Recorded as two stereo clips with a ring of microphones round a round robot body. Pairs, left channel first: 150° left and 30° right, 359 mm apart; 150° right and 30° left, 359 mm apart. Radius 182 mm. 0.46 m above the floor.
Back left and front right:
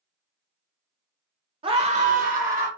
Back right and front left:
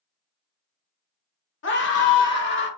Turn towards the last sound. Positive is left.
turn(degrees=-95)